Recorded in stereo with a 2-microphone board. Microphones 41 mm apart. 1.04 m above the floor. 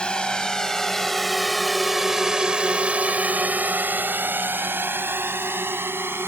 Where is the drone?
25° left (ahead or behind); by 6.3 s 80° right.